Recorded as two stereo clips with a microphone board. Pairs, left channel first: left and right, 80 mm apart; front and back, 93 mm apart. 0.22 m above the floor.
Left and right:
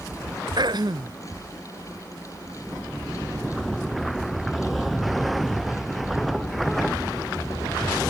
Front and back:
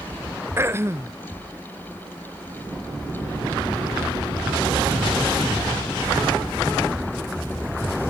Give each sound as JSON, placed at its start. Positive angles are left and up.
{"t": 0.6, "sound": "throat clearing", "azimuth_deg": -115}